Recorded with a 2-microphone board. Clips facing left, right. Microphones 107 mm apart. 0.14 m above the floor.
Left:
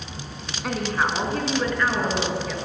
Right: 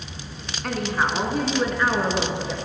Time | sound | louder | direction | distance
0.6 | a woman speaking | even | 5° left (ahead or behind) | 1.1 m